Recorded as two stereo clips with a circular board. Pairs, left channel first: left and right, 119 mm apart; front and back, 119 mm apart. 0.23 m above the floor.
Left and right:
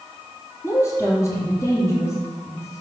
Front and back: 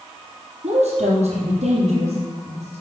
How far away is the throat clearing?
I don't hear throat clearing.